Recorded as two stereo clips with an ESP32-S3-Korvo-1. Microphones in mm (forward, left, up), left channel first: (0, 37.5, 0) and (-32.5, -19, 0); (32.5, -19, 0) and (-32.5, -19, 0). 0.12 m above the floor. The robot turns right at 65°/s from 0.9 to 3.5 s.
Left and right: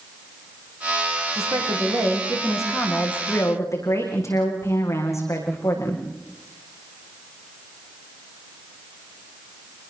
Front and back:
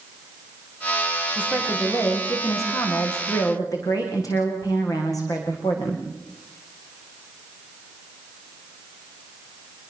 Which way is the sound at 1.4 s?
115° right.